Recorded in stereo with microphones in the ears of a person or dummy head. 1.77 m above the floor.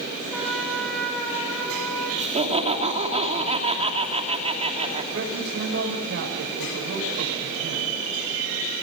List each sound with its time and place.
0.3 s a trumpet: centre (ahead or behind), 6 m
2.2 s laughter: 35° right (ahead or behind), 3.5 m
5.1 s a man speaking: 60° right (ahead or behind), 8.5 m